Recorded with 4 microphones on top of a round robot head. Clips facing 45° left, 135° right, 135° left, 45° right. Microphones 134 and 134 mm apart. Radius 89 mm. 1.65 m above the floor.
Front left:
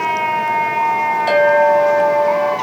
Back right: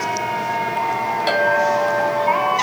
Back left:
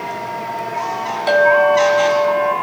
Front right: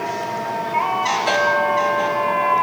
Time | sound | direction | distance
1.3 | a clink | 155° right | 1.9 m